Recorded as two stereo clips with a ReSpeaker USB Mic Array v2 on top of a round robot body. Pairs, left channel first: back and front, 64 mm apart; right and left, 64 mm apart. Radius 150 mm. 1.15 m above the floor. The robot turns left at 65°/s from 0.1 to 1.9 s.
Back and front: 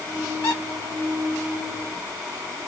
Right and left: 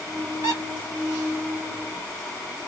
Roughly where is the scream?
No scream in this recording.